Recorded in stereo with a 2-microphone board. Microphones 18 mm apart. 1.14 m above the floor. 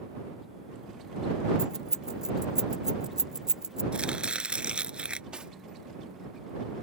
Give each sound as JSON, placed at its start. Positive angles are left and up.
{"t": 1.6, "sound": "keys jangling", "side_deg": -40}
{"t": 3.9, "sound": "chopping", "side_deg": -65}
{"t": 5.3, "sound": "cutlery clinking", "side_deg": -60}